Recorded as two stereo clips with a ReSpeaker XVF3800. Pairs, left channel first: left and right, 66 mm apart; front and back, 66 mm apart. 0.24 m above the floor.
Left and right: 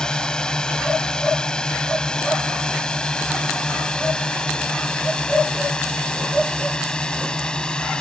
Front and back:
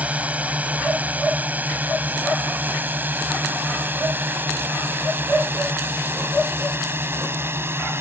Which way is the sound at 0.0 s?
150° left.